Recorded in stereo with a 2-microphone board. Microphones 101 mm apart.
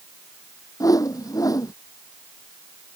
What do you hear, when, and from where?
0.8 s a whoosh: 35° left (ahead or behind)